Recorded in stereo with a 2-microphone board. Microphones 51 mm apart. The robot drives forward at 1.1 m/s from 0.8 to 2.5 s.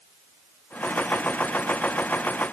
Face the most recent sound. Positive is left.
No sound to turn to.